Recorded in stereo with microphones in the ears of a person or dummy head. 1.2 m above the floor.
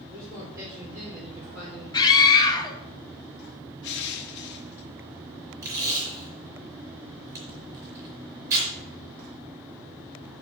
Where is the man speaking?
20° right (ahead or behind), 3.5 m; by 1.8 s 10° right (ahead or behind), 4.5 m.